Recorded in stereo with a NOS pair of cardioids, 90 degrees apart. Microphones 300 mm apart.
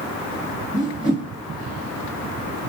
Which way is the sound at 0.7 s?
25° left.